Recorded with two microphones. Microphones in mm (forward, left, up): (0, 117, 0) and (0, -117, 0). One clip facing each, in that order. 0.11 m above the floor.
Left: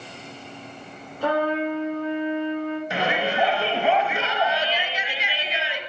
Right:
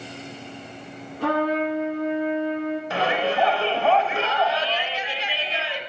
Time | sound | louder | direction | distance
1.2 | a trumpet | right 1 dB | 70° right (ahead or behind) | 4.5 m
2.9 | a shout | right 2 dB | 15° left (ahead or behind) | 1.3 m